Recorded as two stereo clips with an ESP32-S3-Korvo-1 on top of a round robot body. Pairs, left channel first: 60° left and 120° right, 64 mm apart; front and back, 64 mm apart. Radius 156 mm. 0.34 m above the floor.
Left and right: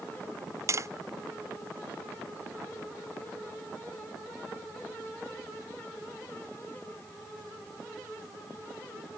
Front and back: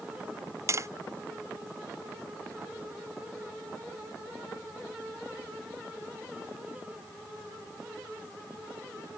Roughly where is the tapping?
Behind right.